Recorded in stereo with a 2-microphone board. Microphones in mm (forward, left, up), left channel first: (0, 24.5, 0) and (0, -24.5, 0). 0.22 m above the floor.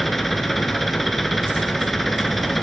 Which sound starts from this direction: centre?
An engine running, at 0.0 s.